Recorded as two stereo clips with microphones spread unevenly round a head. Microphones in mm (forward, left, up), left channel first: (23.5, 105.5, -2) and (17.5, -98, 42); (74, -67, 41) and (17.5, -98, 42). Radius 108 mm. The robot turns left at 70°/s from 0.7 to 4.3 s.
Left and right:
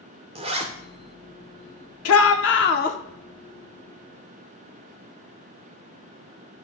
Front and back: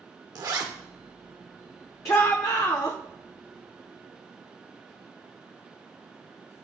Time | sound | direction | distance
0.3 | a zipper | 145° right | 0.8 m
2.0 | a shout | 95° left | 0.8 m